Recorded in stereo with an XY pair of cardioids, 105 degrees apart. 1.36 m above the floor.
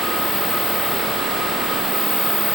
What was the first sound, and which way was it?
Only background noise.